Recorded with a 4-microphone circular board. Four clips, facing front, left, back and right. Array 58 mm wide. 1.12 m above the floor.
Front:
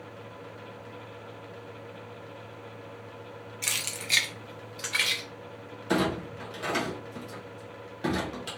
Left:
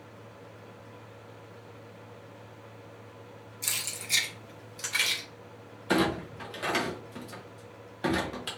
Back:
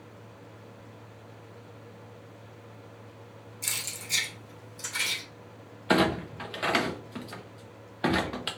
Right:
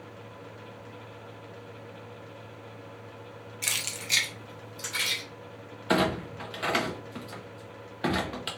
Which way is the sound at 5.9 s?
160° right.